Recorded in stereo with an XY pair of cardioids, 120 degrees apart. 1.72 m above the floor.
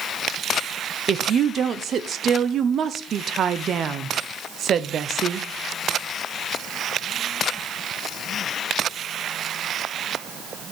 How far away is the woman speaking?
About 0.9 m.